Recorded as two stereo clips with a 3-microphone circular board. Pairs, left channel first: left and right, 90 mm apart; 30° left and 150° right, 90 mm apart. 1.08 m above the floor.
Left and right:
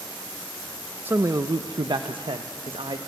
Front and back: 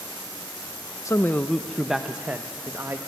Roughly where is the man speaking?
Ahead right.